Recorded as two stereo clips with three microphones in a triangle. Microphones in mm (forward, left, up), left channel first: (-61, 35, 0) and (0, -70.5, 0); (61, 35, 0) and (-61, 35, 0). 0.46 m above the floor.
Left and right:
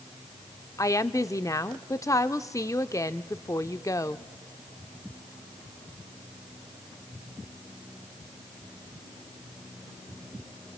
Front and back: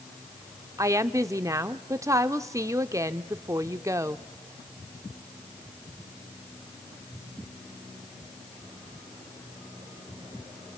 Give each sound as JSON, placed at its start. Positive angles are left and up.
{"t": 0.8, "sound": "a woman speaking", "azimuth_deg": 150, "distance_m": 0.8}